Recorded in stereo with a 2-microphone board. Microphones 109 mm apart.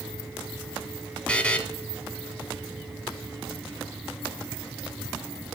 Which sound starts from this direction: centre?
A buzzer, at 1.3 s.